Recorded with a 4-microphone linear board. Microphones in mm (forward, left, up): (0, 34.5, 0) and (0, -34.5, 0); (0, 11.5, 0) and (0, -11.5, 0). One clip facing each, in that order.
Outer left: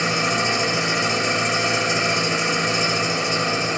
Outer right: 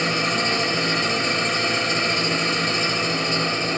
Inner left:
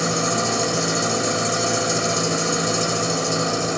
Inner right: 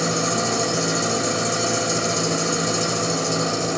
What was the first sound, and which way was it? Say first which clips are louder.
An engine running: outer left 1 dB, even; 10° left (ahead or behind).